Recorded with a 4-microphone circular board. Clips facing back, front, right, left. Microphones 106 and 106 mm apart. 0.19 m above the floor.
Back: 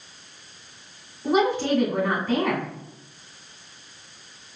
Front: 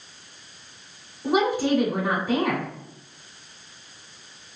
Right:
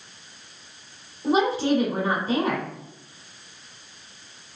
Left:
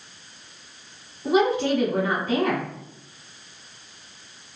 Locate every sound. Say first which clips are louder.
1.2 s a woman speaking: even, left 1 dB; 75° right, 1.8 m